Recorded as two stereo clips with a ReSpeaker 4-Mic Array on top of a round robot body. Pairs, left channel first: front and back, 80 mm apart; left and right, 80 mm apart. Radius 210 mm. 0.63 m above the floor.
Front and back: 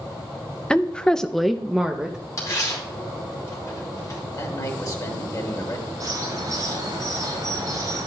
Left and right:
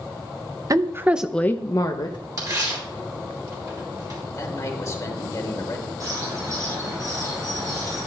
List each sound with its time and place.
0.7 s a woman speaking: 70° right, 0.9 m; by 2.2 s 100° left, 1.1 m
2.4 s tearing paper: 45° right, 3.5 m
4.3 s a man speaking: 40° left, 2.5 m
6.0 s a bird: 135° right, 5.5 m